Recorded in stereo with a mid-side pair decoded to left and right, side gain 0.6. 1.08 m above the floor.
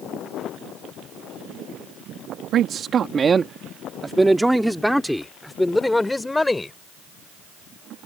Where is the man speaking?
55° right; by 6.7 s 15° left.